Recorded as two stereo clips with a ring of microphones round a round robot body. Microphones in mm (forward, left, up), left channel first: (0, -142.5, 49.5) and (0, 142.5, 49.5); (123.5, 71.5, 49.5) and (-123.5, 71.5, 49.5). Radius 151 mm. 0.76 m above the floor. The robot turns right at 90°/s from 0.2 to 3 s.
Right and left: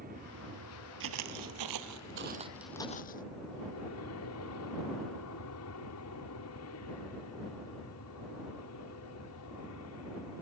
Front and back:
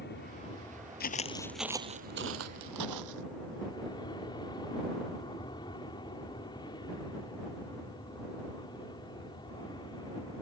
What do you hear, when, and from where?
0.0 s an aircraft: 35° left; by 10.4 s 75° right
1.0 s footsteps: 45° left; by 3.2 s 150° right